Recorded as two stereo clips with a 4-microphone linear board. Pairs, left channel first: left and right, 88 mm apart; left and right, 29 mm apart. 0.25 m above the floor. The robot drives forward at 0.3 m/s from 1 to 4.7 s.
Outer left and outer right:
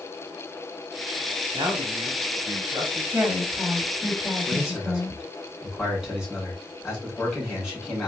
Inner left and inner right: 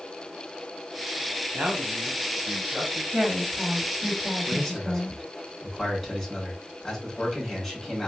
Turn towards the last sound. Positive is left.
turn(degrees=-5)  # may be behind; listen again after turning